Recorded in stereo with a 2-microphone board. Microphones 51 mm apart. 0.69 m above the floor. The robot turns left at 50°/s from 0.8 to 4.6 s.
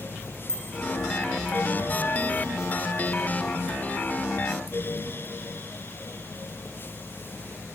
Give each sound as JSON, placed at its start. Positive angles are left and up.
{"t": 0.5, "sound": "a bicycle bell", "side_deg": 15, "distance_m": 6.5}